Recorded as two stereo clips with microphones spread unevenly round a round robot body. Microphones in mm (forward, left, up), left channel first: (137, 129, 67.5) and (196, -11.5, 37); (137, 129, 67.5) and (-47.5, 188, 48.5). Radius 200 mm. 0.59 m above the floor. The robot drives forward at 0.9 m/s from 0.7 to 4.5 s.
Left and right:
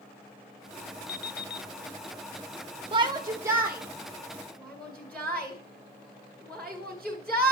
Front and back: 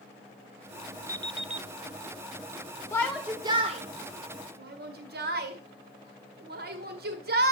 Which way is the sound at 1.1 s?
90° left.